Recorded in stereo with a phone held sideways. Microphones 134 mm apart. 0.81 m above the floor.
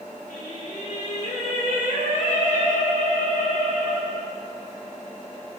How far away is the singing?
About 1.2 m.